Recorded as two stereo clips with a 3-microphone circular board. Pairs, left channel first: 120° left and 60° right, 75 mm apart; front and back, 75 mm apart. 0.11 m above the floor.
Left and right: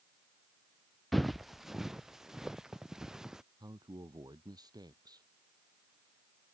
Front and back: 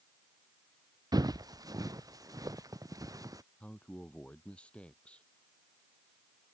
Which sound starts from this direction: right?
A man speaking, at 3.6 s.